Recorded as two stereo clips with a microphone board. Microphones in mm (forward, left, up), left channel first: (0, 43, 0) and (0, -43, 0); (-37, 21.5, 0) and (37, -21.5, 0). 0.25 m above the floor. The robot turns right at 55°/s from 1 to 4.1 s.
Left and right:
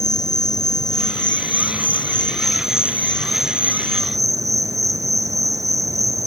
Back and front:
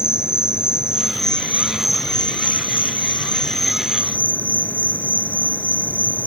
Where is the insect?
50° left, 1.7 m; by 6.3 s 140° right, 1.7 m.